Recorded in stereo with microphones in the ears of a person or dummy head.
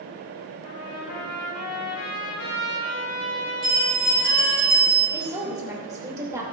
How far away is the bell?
About 3 m.